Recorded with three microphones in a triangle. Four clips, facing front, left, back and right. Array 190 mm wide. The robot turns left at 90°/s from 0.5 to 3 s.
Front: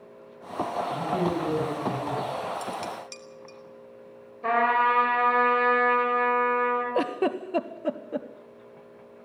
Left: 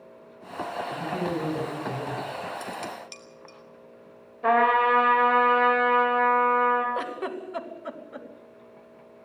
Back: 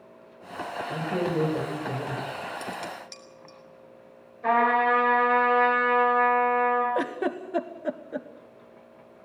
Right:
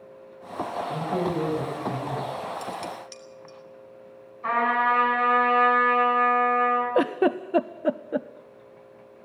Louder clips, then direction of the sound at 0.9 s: Right 3 dB, back 2 dB; 125° right.